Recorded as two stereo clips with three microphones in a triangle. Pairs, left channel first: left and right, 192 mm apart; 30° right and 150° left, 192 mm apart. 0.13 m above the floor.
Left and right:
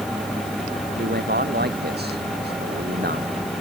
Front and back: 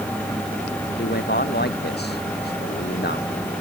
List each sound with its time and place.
1.0 s a man speaking: 60° right